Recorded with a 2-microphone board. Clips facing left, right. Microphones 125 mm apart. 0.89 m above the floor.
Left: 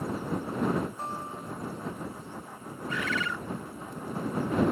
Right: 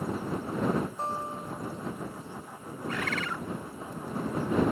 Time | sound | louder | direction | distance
1.0 | a guitar | right 3 dB | 35° right (ahead or behind) | ?
2.9 | a bird | left 1 dB | 55° right (ahead or behind) | ?